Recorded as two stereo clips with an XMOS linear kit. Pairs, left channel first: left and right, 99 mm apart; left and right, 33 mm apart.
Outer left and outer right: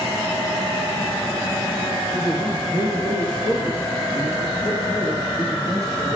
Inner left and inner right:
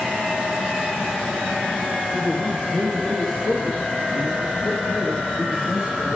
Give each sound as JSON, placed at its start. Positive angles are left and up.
{"t": 2.1, "sound": "a man speaking", "side_deg": 20, "distance_m": 5.0}